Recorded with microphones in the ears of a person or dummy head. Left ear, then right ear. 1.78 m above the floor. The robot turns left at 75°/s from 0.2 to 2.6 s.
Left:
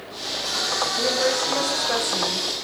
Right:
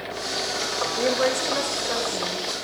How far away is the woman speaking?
About 6.5 m.